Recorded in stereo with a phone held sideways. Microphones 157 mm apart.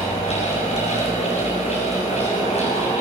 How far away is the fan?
About 7.5 m.